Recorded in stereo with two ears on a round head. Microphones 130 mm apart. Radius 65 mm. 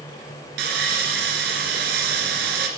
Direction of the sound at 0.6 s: 80° right.